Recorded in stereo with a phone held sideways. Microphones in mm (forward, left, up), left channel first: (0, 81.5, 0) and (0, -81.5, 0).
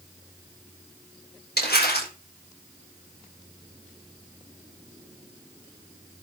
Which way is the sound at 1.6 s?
80° left.